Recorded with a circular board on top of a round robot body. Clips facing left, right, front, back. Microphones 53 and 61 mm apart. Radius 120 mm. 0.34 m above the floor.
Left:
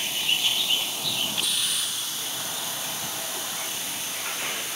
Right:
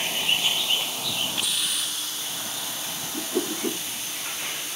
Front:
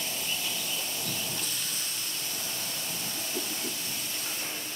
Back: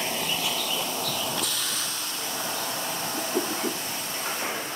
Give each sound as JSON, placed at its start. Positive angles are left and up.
{"t": 0.0, "sound": "a vehicle", "azimuth_deg": -160}
{"t": 3.1, "sound": "a whoosh", "azimuth_deg": -120}